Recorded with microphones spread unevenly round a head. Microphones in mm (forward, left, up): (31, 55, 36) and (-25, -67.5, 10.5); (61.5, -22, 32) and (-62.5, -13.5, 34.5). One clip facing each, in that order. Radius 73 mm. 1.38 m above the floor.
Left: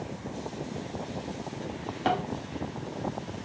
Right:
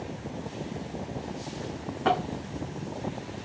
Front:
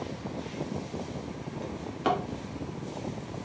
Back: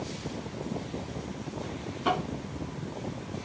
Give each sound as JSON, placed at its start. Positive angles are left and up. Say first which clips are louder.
{"t": 1.6, "sound": "a drawer", "louder": "right 2 dB, front 1 dB", "azimuth_deg": 10, "distance_m": 1.4}